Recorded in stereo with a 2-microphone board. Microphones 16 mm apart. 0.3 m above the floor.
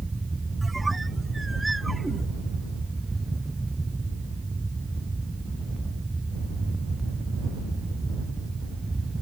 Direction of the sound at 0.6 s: Centre (ahead or behind).